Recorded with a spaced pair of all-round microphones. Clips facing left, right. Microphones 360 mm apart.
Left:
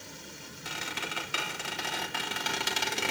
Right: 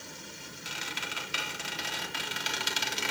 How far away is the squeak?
About 3.5 m.